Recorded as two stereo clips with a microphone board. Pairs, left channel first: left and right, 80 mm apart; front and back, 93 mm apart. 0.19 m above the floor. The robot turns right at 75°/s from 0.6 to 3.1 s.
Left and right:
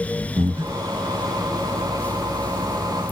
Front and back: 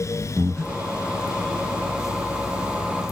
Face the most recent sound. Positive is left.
turn(degrees=100)